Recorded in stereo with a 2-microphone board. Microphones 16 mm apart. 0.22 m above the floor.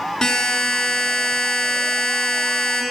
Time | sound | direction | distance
0.2 | a buzzer | 55° left (ahead or behind) | 2.5 m